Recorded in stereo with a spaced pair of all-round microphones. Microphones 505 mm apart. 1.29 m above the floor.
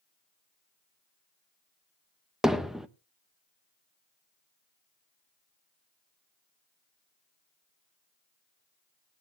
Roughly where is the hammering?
Centre.